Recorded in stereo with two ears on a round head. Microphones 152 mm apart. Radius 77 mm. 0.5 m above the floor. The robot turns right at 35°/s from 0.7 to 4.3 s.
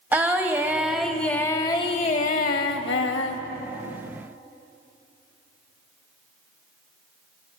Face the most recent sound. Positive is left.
turn(degrees=115)